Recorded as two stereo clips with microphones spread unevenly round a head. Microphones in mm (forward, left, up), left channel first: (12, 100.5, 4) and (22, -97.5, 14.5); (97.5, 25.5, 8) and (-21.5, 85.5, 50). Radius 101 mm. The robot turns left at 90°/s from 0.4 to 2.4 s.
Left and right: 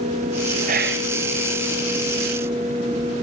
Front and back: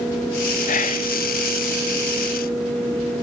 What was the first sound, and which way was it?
Whispering, 35° right.